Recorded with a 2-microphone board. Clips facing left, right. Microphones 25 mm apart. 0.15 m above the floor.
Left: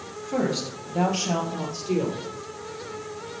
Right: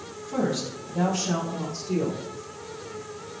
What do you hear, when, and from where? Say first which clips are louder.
0.2 s a woman speaking: left 1 dB; 35° left (ahead or behind), 2 m; by 2.2 s 65° left (ahead or behind), 3.5 m